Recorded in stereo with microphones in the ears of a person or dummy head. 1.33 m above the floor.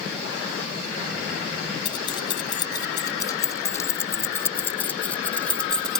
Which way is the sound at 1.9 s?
30° left (ahead or behind).